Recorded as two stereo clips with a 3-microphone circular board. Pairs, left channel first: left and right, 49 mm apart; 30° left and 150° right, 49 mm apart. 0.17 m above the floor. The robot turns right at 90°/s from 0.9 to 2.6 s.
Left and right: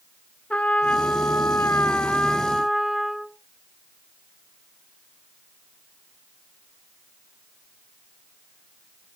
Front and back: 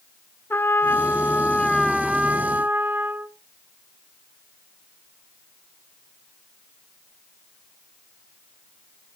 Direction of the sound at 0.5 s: 35° left.